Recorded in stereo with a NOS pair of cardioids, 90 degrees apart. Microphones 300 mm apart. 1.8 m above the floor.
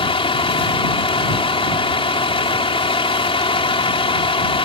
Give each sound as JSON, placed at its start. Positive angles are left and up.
{"t": 0.0, "sound": "a vehicle", "azimuth_deg": 20}